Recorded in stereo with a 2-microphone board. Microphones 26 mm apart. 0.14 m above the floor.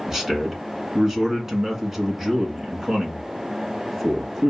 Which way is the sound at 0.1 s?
20° right (ahead or behind).